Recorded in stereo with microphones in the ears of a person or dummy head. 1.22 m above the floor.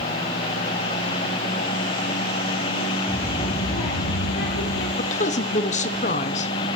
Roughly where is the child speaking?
Centre.